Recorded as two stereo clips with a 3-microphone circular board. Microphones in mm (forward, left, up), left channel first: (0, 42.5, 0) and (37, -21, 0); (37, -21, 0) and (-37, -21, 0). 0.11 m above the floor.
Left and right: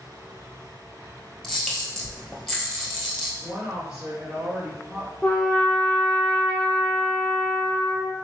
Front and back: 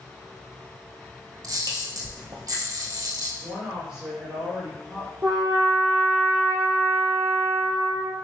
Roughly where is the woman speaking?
Behind right.